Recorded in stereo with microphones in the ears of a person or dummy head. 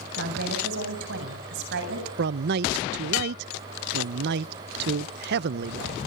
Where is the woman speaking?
60° right (ahead or behind), 7.5 m.